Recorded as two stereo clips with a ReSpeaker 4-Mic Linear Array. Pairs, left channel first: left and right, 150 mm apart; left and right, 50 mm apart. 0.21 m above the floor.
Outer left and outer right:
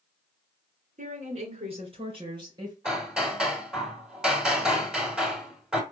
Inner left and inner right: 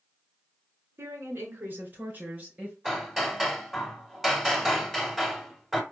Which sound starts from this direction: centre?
Hammering, at 2.9 s.